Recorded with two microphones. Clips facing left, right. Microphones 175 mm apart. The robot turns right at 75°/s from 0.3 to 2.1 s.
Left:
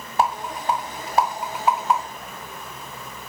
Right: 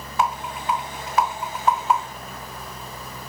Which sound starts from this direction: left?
A rattle, at 0.2 s.